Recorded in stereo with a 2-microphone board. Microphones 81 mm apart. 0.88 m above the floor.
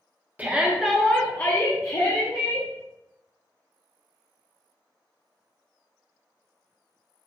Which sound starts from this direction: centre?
A shout, at 0.4 s.